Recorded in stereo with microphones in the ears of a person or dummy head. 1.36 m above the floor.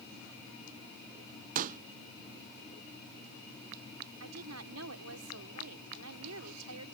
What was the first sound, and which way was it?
A pop, 45° right (ahead or behind).